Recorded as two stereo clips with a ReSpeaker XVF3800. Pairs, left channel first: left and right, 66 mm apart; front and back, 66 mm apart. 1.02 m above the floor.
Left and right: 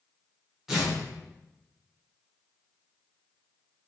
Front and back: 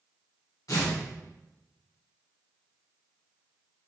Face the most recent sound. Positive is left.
turn(degrees=-5)